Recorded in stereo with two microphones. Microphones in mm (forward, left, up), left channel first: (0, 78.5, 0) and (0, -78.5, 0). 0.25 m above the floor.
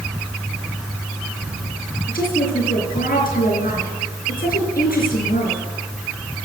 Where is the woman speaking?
70° left (ahead or behind), 4 m.